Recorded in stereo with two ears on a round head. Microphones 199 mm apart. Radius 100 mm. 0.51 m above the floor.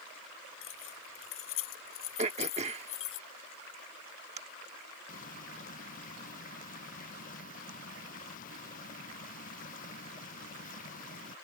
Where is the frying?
35° left (ahead or behind).